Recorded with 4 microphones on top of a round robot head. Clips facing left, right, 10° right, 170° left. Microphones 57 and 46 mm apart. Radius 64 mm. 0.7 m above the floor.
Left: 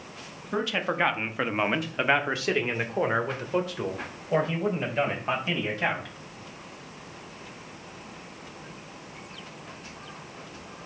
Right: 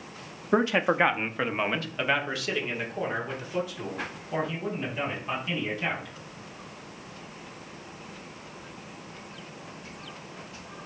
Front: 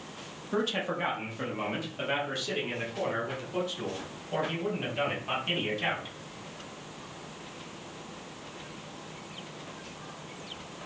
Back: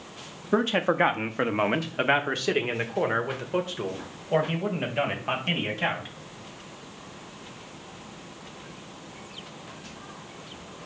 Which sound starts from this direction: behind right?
A man speaking, at 0.5 s.